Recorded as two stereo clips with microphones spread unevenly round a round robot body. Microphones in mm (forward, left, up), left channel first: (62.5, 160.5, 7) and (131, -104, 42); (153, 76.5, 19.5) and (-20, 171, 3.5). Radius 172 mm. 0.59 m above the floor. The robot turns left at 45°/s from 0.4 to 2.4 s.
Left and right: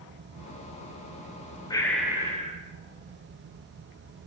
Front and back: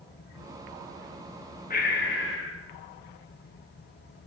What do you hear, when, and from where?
1.7 s breathing: 25° left, 0.6 m; by 2.6 s 5° right, 0.6 m